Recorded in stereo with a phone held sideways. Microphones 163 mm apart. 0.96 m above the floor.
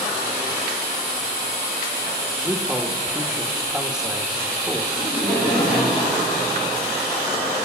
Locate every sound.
2.4 s a man speaking: 5° right (ahead or behind), 1.4 m
4.9 s laughter: 75° left (ahead or behind), 8.5 m